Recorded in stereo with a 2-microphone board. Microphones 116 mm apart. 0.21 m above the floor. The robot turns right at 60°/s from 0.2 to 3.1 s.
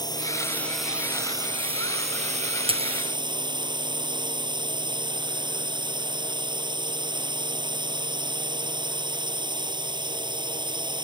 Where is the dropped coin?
50° right (ahead or behind); by 2.9 s 65° right (ahead or behind).